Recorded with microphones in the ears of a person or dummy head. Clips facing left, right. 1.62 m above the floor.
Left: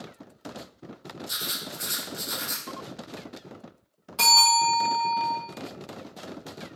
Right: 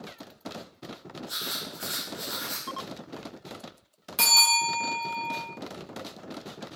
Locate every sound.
1.3 s writing: 30° left (ahead or behind), 0.6 m
4.2 s a bell: 20° right (ahead or behind), 1.2 m